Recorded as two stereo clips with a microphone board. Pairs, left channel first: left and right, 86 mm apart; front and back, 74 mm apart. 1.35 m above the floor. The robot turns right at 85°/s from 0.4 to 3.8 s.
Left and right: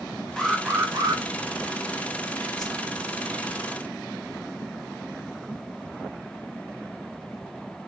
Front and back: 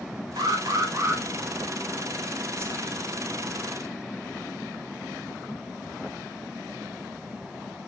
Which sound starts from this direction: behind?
An alarm, at 0.4 s.